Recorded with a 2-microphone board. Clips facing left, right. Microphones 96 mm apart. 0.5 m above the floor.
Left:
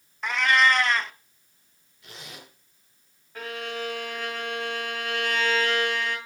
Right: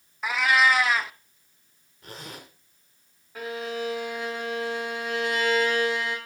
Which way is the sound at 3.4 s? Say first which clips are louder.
Right 2 dB; 5° right (ahead or behind).